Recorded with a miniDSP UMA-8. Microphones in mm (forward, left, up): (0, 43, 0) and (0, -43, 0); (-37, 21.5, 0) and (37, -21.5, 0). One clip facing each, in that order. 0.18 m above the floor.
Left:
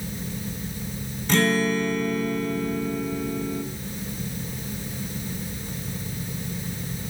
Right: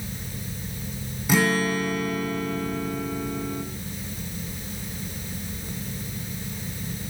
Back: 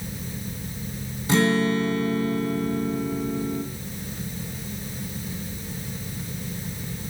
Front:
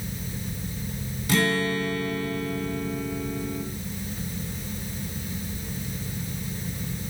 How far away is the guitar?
About 0.7 m.